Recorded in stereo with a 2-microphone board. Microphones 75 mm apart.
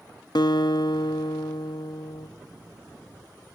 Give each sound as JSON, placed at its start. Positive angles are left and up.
{"t": 0.3, "sound": "a guitar", "side_deg": 65, "distance_m": 0.9}